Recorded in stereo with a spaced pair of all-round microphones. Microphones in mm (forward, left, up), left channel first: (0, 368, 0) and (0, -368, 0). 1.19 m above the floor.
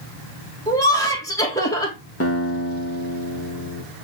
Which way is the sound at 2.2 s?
20° left (ahead or behind).